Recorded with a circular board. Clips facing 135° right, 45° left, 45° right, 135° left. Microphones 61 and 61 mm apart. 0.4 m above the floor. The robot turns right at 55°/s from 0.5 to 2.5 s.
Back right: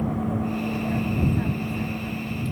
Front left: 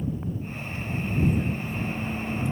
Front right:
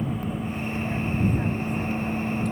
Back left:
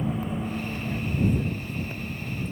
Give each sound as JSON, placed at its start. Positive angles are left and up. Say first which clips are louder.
{"t": 0.0, "sound": "a vehicle", "louder": "back right 7 dB, even", "azimuth_deg": -135}